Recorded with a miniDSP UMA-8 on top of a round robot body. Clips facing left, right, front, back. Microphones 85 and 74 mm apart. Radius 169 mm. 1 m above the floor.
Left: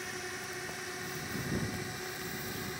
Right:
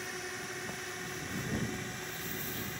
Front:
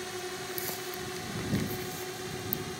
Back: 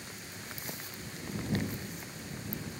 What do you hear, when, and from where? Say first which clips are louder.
0.0 s a drone: even, front 9 dB; straight ahead; by 2.8 s 10° left